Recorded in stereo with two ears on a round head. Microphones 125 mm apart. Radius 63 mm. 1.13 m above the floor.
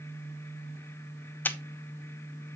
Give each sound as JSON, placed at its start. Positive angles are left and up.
{"t": 1.4, "sound": "a camera shutter", "side_deg": 15, "distance_m": 0.5}